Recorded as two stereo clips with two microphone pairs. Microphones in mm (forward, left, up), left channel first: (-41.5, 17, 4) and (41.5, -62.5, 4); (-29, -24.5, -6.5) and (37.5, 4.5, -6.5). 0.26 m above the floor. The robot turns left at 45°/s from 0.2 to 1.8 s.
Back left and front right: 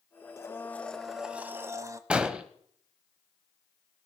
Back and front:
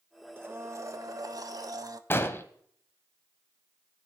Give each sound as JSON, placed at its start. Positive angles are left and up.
{"t": 0.4, "sound": "a blender", "azimuth_deg": 75, "distance_m": 0.6}
{"t": 2.1, "sound": "an explosion", "azimuth_deg": -115, "distance_m": 0.7}